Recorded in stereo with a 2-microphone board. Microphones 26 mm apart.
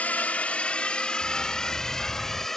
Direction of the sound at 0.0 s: 65° left (ahead or behind).